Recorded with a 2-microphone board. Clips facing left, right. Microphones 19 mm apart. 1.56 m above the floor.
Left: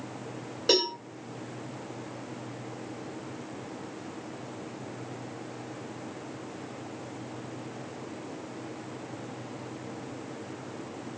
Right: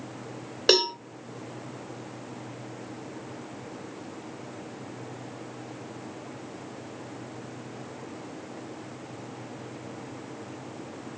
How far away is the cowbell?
About 1.5 m.